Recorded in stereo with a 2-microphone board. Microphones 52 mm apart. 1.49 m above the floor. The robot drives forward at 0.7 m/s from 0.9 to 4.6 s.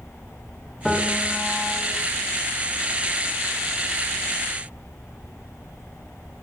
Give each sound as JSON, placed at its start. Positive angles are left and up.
{"t": 0.8, "sound": "a piano", "side_deg": 0, "distance_m": 5.0}